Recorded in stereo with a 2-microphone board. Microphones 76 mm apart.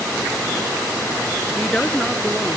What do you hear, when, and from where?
1.6 s a woman speaking: 10° left (ahead or behind)